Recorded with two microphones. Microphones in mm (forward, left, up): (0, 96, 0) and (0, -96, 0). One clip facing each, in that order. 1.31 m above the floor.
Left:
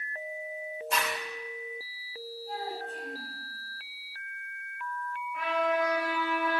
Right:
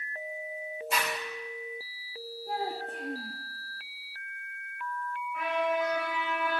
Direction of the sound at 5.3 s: Centre (ahead or behind).